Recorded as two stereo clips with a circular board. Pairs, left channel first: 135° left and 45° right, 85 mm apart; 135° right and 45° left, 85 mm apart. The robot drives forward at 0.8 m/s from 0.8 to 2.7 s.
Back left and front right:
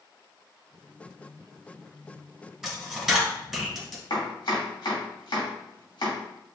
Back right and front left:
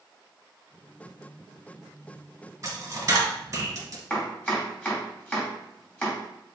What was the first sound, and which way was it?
A dropped coin, 35° left.